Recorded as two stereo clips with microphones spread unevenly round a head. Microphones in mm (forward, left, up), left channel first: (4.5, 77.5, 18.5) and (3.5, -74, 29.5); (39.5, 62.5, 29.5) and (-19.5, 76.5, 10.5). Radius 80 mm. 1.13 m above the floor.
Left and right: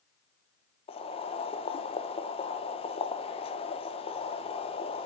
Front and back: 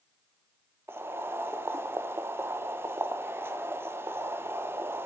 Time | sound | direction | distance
0.9 | boiling | 135° left | 1.0 m